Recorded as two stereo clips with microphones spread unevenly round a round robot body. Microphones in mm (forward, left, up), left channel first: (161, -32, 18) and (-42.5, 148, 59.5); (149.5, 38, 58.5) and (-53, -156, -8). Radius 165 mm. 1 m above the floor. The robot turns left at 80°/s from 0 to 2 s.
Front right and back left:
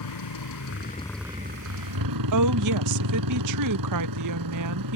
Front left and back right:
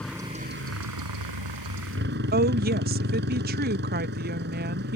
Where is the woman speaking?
170° left.